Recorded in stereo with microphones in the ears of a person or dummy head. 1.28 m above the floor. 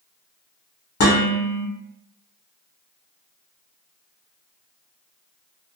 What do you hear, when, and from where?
1.0 s dishes clattering: 70° left (ahead or behind), 1.2 m